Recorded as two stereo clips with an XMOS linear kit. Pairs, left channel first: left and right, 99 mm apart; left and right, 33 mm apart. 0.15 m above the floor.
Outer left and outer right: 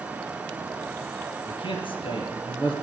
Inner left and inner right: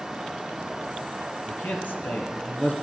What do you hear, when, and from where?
1.5 s a man speaking: 60° left (ahead or behind), 3 m